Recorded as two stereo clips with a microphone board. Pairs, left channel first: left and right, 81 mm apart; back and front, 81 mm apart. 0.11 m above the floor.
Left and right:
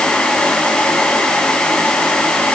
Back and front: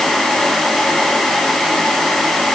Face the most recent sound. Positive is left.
No sound to turn to.